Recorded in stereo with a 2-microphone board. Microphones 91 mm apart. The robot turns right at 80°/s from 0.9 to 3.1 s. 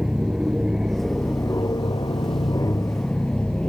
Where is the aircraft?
10° right; by 3.7 s 170° left.